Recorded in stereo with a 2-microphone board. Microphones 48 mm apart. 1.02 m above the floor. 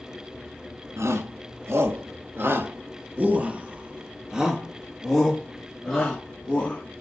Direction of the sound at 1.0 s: 70° right (ahead or behind).